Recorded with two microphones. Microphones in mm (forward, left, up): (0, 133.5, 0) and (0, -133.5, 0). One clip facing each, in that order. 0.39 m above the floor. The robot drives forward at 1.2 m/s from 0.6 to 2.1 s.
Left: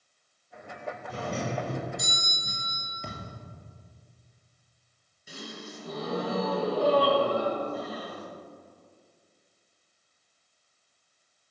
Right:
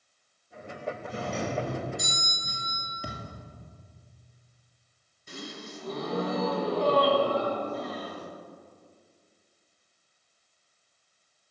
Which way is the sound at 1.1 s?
Centre (ahead or behind).